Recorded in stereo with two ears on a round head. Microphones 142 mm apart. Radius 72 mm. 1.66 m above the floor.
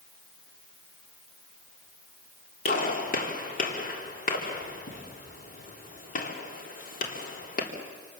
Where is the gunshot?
55° left (ahead or behind), 3.5 m.